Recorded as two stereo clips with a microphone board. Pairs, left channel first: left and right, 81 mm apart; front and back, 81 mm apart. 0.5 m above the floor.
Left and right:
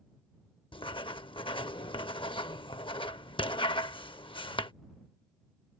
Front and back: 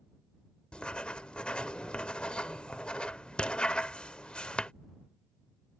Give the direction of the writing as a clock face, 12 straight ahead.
9 o'clock.